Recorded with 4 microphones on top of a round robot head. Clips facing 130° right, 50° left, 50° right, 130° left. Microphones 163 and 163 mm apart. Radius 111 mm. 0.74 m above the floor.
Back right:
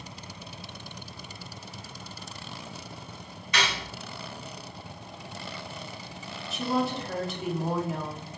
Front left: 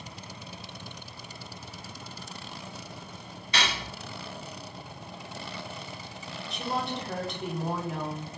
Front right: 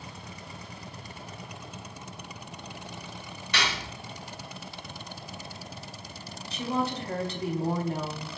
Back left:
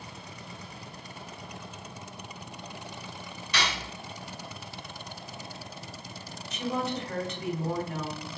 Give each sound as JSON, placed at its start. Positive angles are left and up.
{"t": 3.5, "sound": "cutlery clinking", "azimuth_deg": -15, "distance_m": 0.9}
{"t": 6.5, "sound": "a woman speaking", "azimuth_deg": -45, "distance_m": 0.8}